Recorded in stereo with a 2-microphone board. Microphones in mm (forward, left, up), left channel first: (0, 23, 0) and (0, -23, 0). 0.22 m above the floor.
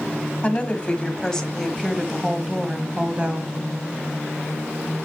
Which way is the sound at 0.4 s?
30° left (ahead or behind).